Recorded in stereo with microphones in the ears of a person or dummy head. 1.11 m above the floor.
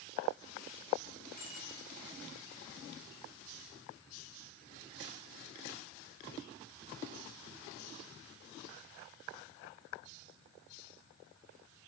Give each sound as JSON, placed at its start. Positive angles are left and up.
{"t": 1.4, "sound": "a bicycle bell", "side_deg": 40, "distance_m": 5.5}